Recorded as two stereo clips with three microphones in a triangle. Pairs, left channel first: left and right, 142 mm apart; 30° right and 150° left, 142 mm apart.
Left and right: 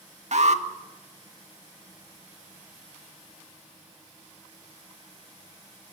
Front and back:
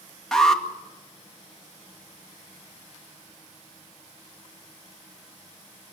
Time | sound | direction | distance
0.3 | an alarm | 115° right | 1.9 m